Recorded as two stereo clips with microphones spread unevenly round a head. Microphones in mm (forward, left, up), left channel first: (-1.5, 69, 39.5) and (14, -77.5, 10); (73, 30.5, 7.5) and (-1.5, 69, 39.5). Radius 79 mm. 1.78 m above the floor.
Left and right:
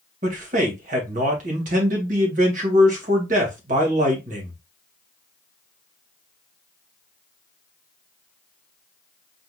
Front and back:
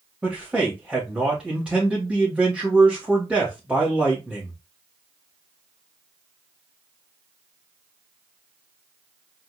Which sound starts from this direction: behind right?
A man speaking, at 0.2 s.